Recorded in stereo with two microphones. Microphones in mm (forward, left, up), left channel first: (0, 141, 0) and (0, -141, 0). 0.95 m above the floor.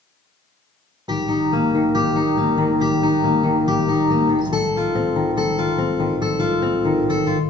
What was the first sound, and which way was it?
A guitar, 15° right (ahead or behind).